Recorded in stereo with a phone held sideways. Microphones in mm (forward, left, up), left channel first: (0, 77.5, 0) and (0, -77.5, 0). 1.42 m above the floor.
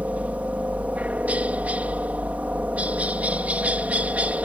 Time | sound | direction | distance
0.0 | a helicopter | 10° right (ahead or behind) | ?